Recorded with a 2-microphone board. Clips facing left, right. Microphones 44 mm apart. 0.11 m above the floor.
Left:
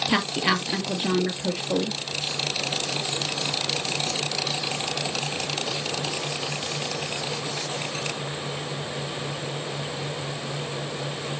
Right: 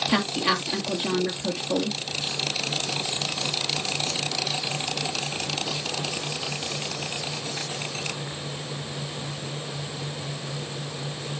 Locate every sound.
0.1 s a woman speaking: 15° left (ahead or behind), 2 m